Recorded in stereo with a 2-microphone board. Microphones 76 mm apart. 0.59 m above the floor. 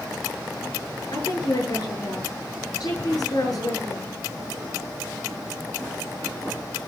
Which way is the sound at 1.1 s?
55° left (ahead or behind).